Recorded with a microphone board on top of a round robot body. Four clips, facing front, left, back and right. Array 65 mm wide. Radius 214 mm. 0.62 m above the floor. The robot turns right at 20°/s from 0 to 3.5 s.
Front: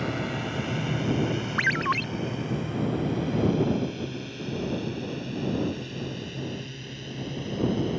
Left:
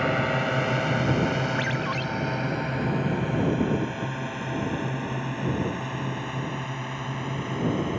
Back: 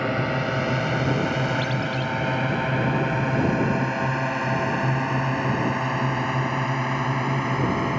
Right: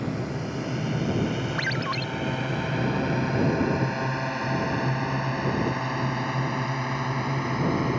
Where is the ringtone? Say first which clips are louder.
Left 1 dB, even; 10° right; by 2.0 s 5° right.